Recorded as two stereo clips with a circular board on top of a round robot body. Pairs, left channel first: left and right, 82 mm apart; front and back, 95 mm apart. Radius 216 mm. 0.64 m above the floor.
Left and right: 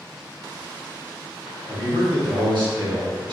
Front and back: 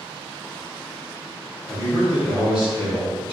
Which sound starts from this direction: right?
A man speaking, at 1.7 s.